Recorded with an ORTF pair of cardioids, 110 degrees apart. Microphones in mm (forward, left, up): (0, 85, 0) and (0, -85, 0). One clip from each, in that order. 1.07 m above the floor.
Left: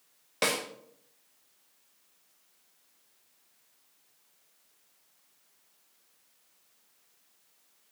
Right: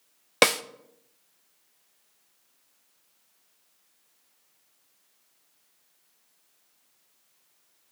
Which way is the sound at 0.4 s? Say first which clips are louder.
Right 8 dB; 65° right.